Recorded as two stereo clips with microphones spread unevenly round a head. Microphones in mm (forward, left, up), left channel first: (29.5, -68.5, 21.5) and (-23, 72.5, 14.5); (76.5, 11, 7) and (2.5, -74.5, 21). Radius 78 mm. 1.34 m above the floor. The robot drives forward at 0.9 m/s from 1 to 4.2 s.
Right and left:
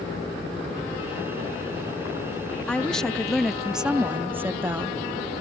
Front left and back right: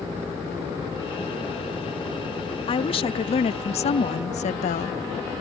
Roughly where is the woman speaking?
Ahead.